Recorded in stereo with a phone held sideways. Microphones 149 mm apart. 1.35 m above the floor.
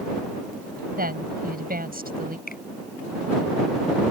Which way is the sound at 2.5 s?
85° left.